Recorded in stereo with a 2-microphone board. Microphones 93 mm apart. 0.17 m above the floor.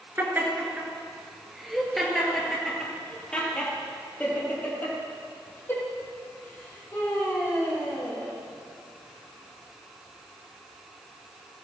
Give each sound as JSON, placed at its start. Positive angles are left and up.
{"t": 0.2, "sound": "laughter", "side_deg": -20, "distance_m": 2.5}